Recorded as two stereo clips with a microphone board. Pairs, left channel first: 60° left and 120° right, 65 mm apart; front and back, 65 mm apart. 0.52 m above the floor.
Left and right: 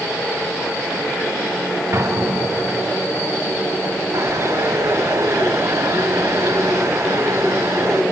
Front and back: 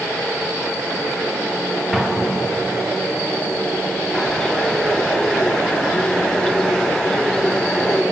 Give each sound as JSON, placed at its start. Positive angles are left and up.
{"t": 1.9, "sound": "an explosion", "azimuth_deg": -95, "distance_m": 1.9}
{"t": 4.1, "sound": "a bird", "azimuth_deg": -80, "distance_m": 2.0}